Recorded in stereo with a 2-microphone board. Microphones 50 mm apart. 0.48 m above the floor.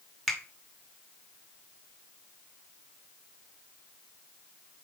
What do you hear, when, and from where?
0.3 s a finger snap: 5° left (ahead or behind), 1.0 m